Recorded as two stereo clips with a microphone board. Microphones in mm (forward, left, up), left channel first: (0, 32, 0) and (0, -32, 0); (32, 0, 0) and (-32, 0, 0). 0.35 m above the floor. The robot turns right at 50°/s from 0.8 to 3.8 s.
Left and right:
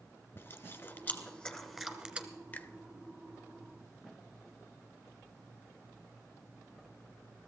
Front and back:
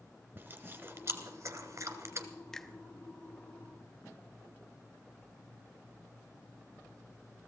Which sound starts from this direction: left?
A finger snap, at 2.5 s.